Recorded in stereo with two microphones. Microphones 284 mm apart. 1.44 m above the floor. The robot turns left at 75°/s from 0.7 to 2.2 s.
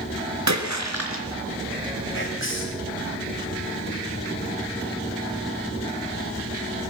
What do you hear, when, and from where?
0.5 s a splash: 95° right, 4.5 m; by 1.2 s 140° right, 4.5 m
2.1 s whispering: 50° left (ahead or behind), 8.5 m; by 2.9 s 45° left (ahead or behind), 8.5 m